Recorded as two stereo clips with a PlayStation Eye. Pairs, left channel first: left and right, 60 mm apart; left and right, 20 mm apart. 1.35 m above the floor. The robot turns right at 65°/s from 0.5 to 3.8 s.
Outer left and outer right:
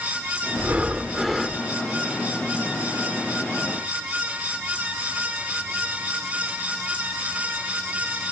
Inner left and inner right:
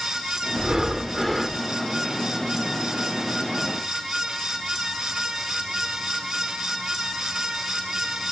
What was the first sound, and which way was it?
Breathing, 50° right.